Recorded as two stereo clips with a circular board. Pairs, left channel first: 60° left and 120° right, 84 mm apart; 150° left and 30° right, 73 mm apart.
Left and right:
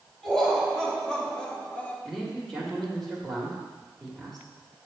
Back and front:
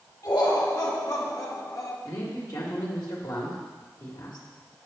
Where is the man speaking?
145° left, 1.9 m.